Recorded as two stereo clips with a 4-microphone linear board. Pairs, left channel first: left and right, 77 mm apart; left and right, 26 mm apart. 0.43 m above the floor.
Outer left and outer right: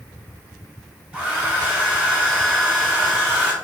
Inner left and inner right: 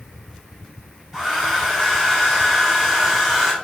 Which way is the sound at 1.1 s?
20° right (ahead or behind).